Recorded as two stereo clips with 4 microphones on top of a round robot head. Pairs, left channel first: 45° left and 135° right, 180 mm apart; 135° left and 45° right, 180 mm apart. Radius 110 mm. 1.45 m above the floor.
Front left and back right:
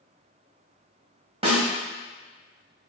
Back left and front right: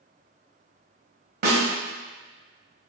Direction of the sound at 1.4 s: 75° right.